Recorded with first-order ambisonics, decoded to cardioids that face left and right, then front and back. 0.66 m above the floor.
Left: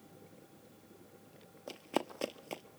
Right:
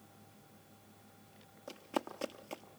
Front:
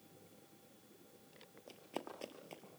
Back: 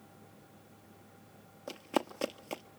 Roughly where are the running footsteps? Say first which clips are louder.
Left 2 dB, back 13 dB; behind left.